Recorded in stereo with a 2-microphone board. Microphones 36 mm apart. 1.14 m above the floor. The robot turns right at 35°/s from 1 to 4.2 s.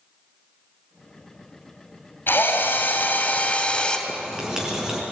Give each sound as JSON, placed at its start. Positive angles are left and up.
{"t": 2.3, "sound": "a drill", "azimuth_deg": 100, "distance_m": 3.5}
{"t": 4.1, "sound": "writing", "side_deg": -20, "distance_m": 6.0}